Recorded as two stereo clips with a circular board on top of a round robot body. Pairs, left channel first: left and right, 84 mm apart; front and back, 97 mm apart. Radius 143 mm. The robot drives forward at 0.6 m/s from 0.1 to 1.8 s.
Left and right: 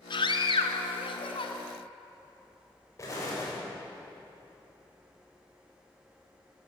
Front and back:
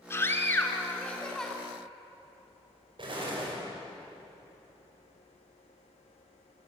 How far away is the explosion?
About 6 m.